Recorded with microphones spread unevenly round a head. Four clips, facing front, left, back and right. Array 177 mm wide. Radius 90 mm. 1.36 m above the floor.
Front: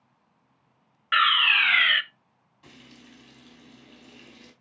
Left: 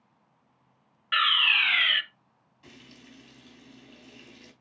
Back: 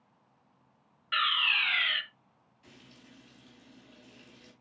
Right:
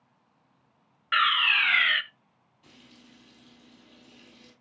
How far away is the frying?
About 4 m.